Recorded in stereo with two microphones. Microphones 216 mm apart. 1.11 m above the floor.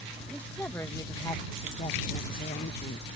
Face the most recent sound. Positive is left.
turn(degrees=55)  # may be behind; listen again after turning